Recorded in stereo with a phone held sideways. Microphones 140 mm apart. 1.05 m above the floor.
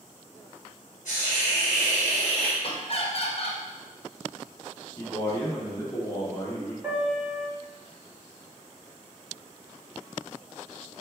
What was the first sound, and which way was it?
A hiss, 65° left (ahead or behind).